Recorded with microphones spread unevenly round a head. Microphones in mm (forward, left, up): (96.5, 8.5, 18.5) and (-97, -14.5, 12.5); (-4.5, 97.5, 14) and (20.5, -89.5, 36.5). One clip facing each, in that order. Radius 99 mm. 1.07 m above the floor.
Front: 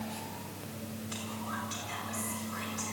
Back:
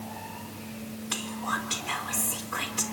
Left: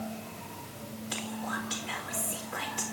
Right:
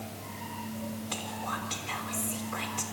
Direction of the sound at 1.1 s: Straight behind.